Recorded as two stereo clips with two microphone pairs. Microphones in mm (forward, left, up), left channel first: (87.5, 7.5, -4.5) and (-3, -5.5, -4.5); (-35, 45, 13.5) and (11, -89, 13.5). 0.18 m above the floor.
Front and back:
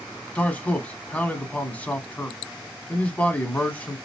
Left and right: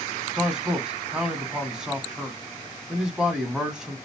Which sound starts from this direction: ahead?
A man speaking, at 0.3 s.